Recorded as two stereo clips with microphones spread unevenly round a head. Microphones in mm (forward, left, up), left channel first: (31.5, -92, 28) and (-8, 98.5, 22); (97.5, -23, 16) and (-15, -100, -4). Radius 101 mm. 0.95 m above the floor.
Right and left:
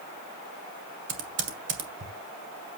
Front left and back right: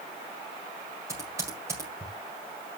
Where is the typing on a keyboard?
135° left, 1.8 m.